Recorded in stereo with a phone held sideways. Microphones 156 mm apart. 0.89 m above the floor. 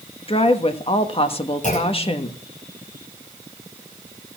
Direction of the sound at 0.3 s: 40° left (ahead or behind).